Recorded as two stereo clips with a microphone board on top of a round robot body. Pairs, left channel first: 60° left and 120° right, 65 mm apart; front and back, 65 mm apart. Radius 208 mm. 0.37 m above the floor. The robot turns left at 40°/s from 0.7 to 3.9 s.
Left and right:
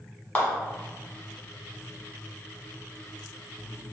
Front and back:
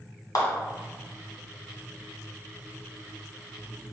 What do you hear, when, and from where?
0.3 s a clap: 10° right, 1.5 m